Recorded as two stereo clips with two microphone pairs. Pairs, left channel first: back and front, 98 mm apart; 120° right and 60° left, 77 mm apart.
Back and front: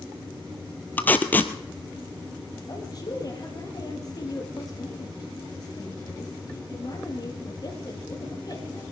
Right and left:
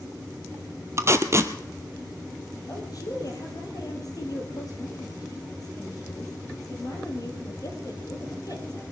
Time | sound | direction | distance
1.0 | tape being pulled | 110° left | 0.9 m
2.7 | a woman speaking | 140° right | 3.5 m